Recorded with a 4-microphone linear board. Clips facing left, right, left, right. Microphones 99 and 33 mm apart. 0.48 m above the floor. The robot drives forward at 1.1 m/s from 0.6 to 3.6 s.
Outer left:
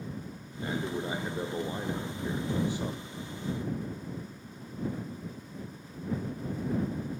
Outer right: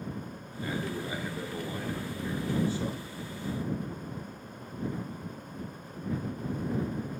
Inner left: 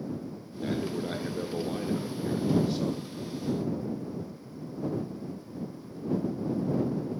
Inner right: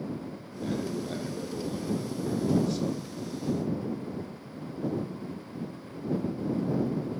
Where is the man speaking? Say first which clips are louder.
Outer left 1 dB, inner left 1 dB; 25° left (ahead or behind), 1.6 m; by 3.1 s 15° left (ahead or behind), 2.5 m.